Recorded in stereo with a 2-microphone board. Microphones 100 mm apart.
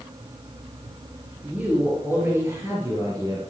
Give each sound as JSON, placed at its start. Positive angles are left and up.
{"t": 1.4, "sound": "a woman speaking", "side_deg": -10, "distance_m": 5.5}